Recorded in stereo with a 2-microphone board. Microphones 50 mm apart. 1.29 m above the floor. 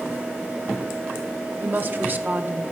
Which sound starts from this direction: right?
A woman speaking, at 1.6 s.